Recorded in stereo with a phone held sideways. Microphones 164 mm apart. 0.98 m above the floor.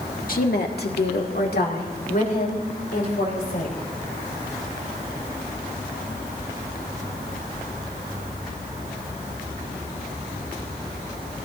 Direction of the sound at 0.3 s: 60° left (ahead or behind).